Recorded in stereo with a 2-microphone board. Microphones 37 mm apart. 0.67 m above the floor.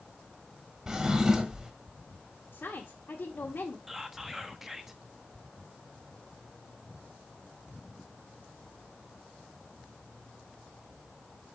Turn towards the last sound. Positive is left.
turn(degrees=-10)  # may be behind; listen again after turning